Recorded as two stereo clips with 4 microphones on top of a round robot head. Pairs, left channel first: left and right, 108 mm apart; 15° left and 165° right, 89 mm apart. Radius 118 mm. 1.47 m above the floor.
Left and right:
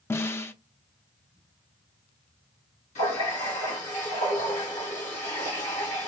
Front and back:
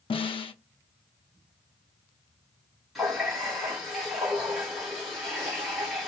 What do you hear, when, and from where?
0.1 s a snare drum: 20° left, 0.5 m
3.0 s a running tap: 105° left, 1.4 m